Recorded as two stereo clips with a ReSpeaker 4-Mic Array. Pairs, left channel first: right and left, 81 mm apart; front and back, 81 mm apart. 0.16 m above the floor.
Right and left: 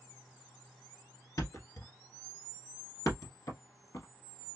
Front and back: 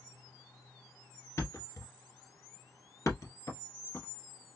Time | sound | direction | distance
1.4 | a thud | 45° right | 1.2 m